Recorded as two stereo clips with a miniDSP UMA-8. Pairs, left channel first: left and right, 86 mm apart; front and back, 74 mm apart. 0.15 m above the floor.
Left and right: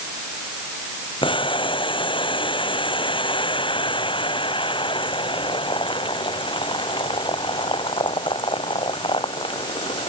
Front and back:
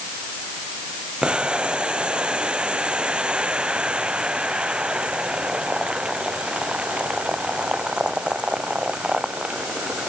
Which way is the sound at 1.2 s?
105° left.